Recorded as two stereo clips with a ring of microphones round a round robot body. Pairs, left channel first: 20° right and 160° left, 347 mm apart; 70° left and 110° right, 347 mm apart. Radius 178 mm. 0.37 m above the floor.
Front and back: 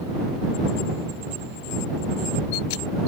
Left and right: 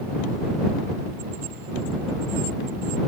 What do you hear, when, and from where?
Only background noise.